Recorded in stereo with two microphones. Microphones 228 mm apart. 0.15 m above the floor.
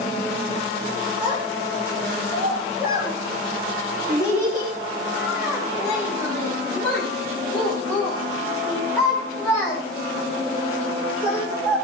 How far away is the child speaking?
About 6.5 m.